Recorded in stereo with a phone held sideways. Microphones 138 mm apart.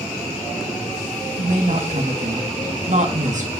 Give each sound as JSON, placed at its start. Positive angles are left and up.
{"t": 1.4, "sound": "a woman speaking", "side_deg": -60, "distance_m": 2.5}